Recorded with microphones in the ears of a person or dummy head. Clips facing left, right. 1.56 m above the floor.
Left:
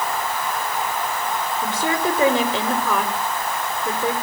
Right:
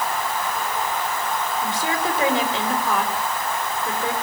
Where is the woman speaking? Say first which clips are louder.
Left 5 dB; 80° left, 6 m.